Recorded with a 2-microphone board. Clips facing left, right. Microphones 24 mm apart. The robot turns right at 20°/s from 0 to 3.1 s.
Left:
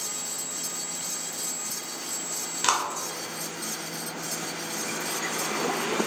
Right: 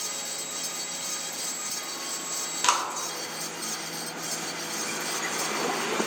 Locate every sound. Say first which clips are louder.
2.6 s a clap: even; centre (ahead or behind), 0.7 m; by 2.9 s 5° right (ahead or behind), 0.7 m